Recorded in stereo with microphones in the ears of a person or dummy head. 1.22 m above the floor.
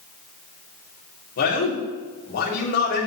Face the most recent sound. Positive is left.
turn(degrees=60)  # may be behind; listen again after turning